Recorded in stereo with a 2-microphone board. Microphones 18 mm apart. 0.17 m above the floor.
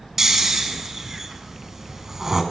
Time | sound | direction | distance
0.2 | snoring | 25° right (ahead or behind) | 1.5 m